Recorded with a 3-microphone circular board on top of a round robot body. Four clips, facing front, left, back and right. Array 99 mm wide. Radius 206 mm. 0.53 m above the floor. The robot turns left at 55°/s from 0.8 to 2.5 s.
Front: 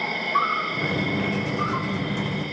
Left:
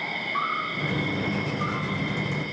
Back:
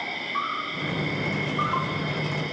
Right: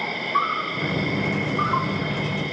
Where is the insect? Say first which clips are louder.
Right 5 dB, front 6 dB; 50° right, 3 m; by 2.5 s 145° right, 3 m.